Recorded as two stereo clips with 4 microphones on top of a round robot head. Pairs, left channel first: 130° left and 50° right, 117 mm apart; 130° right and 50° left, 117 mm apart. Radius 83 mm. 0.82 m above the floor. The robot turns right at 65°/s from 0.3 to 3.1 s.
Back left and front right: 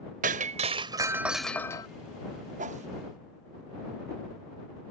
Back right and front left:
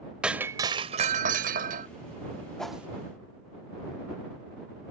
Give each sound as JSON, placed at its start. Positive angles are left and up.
{"t": 0.2, "sound": "breaking glass", "azimuth_deg": -30}
{"t": 2.6, "sound": "a whoosh", "azimuth_deg": -45}